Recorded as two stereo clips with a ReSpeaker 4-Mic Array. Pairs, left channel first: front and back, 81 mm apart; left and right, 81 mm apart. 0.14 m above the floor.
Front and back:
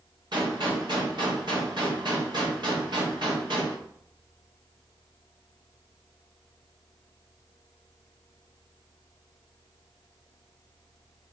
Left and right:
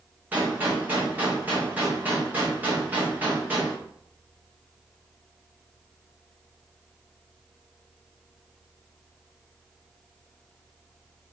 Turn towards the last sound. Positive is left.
turn(degrees=-160)